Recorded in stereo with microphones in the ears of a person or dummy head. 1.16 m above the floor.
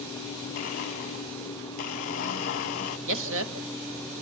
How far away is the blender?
About 0.8 m.